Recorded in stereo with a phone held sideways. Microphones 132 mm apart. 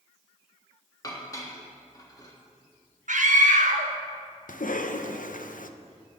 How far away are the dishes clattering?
About 1.4 m.